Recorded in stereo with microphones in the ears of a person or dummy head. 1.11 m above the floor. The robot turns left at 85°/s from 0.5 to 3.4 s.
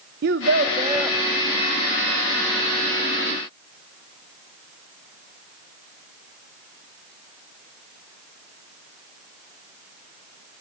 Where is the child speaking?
125° right, 0.6 m; by 1.2 s 175° left, 0.6 m.